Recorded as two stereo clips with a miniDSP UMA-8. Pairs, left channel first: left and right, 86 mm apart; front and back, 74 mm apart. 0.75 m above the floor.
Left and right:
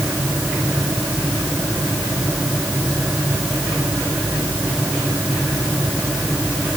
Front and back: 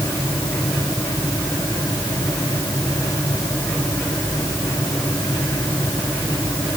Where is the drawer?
I don't hear a drawer.